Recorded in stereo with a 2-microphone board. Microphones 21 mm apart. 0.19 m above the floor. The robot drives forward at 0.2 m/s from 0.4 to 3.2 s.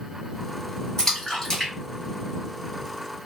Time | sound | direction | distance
1.0 | a splash | 20° left (ahead or behind) | 1.8 m